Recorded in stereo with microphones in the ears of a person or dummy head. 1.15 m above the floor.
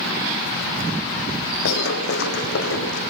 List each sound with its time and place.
1.6 s running footsteps: 60° left (ahead or behind), 3 m; by 3.0 s 70° left (ahead or behind), 3.5 m